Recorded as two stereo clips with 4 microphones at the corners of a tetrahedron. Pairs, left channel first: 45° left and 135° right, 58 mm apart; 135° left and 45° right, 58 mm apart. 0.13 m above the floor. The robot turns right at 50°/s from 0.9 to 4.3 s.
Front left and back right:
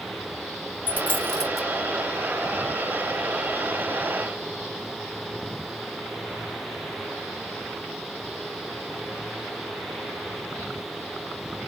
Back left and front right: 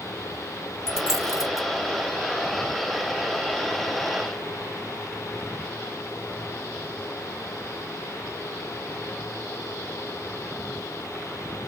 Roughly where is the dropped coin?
Left.